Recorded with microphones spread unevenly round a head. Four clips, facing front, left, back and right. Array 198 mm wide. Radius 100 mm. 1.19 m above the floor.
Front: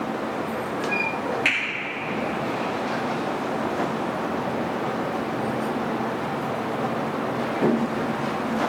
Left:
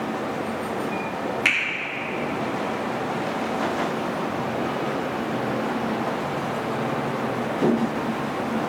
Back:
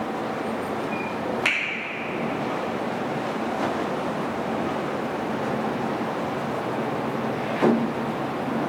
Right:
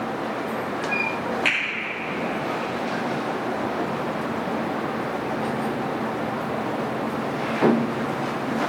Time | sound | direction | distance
1.4 | a finger snap | 160° left | 3.5 m